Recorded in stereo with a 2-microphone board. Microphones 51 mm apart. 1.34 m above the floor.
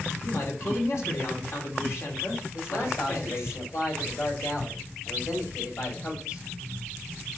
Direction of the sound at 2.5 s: 75° left (ahead or behind).